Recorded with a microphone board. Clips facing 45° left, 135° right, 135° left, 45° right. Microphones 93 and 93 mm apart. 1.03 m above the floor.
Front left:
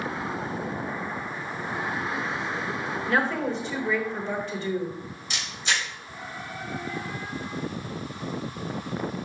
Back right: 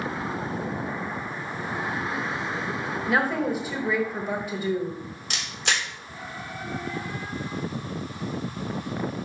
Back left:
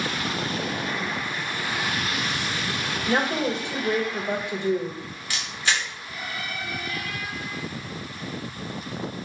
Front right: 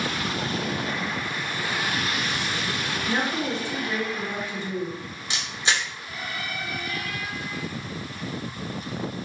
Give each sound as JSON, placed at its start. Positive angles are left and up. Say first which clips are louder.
{"t": 3.1, "sound": "a woman speaking", "louder": "back right 1 dB, back left 3 dB", "azimuth_deg": 145, "distance_m": 1.3}
{"t": 5.3, "sound": "a camera shutter", "louder": "back right 1 dB, even", "azimuth_deg": -110, "distance_m": 1.7}